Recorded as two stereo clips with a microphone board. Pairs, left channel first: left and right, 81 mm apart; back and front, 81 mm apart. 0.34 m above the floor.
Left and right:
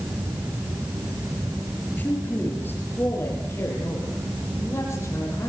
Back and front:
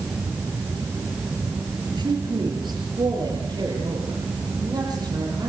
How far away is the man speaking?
About 6 m.